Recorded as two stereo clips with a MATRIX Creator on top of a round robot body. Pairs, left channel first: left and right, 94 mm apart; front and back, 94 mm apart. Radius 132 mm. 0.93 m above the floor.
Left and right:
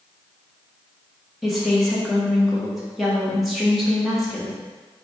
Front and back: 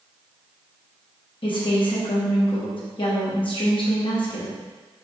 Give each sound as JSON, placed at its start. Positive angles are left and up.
{"t": 1.4, "sound": "a woman speaking", "azimuth_deg": 0, "distance_m": 1.1}